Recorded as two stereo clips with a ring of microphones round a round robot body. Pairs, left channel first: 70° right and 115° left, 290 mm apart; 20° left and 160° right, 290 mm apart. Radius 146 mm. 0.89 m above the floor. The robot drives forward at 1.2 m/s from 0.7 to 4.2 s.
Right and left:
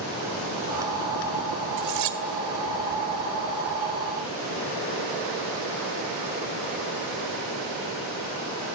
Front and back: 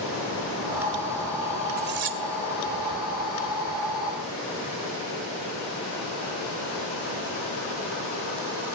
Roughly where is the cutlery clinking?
Behind left.